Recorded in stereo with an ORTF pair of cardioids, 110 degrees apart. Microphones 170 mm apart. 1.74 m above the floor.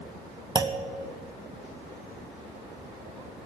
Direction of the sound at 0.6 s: 25° right.